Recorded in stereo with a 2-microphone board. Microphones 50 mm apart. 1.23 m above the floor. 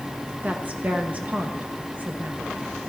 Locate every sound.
0.4 s a woman speaking: 30° right (ahead or behind), 1.0 m